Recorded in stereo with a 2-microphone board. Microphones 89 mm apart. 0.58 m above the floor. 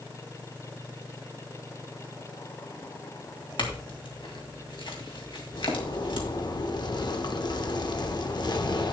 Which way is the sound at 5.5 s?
55° left (ahead or behind).